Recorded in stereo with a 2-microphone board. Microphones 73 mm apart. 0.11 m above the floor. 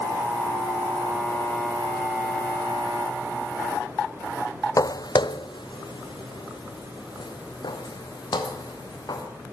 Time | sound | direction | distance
4.8 | footsteps | 50° left (ahead or behind) | 0.7 m